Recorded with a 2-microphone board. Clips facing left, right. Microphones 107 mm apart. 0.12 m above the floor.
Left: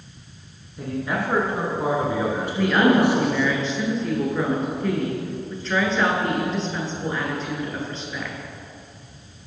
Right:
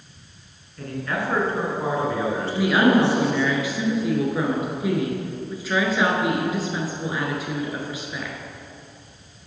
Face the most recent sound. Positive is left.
turn(degrees=-10)  # may be behind; listen again after turning